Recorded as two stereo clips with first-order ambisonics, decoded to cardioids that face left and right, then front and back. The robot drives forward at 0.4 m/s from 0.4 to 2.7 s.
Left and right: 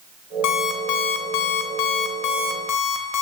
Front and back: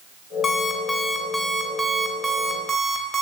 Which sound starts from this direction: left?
An alarm clock, at 0.4 s.